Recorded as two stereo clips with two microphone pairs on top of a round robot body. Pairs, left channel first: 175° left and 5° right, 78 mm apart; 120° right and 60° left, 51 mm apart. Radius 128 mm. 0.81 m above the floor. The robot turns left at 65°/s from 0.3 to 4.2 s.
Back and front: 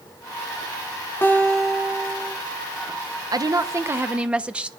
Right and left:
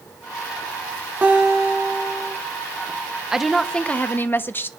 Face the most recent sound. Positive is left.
turn(degrees=-75)